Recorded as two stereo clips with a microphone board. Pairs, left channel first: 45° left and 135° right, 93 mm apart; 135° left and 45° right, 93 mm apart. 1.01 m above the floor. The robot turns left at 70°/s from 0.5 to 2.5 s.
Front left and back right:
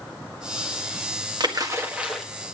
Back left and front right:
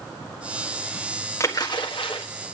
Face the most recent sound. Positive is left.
turn(degrees=115)